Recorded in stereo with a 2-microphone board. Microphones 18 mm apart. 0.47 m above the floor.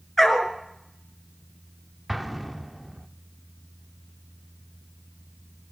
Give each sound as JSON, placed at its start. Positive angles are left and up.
{"t": 0.2, "sound": "a dog barking", "side_deg": 10, "distance_m": 2.5}
{"t": 2.1, "sound": "an explosion", "side_deg": -5, "distance_m": 0.9}